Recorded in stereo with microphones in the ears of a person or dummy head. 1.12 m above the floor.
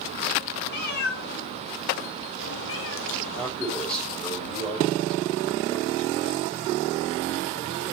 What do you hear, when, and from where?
0.7 s a cat meowing: 50° left (ahead or behind), 2.5 m; by 3.5 s 75° left (ahead or behind), 1.7 m
3.4 s a man speaking: 5° left (ahead or behind), 4.5 m